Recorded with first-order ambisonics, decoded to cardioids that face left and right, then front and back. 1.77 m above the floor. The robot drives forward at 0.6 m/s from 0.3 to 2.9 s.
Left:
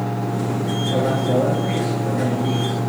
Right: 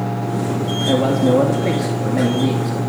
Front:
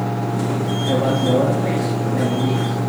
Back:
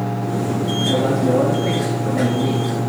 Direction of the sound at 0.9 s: 85° right.